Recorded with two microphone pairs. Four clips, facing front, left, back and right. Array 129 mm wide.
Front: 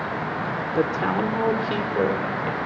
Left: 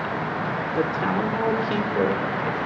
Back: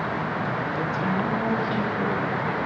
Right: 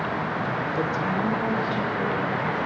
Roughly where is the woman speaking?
Ahead.